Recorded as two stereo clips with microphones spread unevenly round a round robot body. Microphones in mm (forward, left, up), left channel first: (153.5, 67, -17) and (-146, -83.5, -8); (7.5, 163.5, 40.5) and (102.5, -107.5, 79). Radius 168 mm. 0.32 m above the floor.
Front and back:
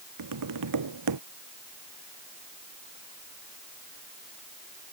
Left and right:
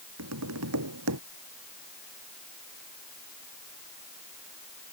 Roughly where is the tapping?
Behind right.